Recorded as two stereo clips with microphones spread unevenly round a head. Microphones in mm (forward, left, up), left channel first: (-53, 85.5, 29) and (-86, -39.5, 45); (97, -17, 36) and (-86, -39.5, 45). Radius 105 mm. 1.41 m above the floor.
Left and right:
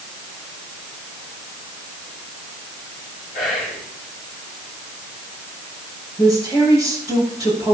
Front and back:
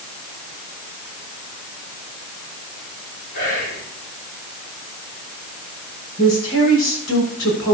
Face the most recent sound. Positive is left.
turn(degrees=10)